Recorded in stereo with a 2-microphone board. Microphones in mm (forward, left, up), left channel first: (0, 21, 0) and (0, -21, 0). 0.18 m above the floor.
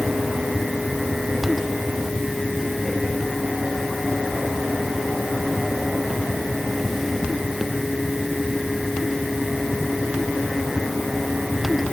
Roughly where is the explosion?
No explosion in this recording.